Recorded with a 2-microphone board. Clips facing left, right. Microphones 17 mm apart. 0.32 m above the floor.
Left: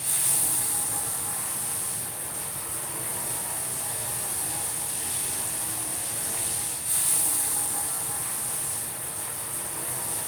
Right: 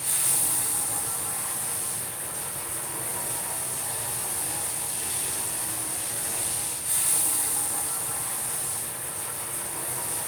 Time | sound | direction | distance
0.0 | running water | 15° right (ahead or behind) | 1.1 m
3.2 | a whoosh | 25° right (ahead or behind) | 0.6 m